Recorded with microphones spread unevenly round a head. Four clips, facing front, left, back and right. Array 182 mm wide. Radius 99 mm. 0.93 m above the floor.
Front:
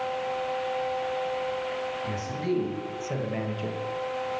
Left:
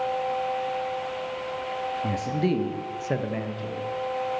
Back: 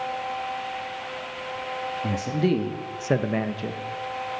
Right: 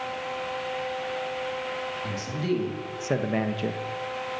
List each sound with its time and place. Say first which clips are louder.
2.0 s a man speaking: left 4 dB, back 9 dB; 145° left, 2 m; by 3.8 s 100° right, 1.2 m